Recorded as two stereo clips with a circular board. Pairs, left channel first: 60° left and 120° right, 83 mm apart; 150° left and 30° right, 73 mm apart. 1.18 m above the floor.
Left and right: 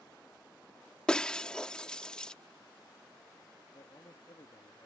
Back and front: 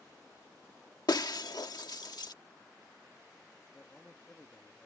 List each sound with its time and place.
1.1 s breaking glass: 140° left
3.7 s a man speaking: 80° left